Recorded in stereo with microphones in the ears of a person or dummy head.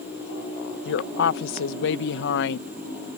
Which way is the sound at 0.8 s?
70° left (ahead or behind).